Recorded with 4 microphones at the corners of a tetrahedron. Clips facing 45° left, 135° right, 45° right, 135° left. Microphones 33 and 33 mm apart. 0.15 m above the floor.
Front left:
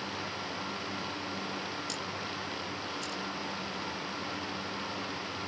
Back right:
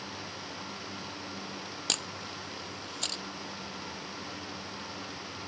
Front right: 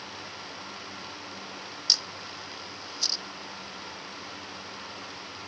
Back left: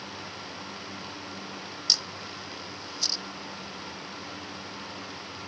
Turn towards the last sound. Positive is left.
turn(degrees=-135)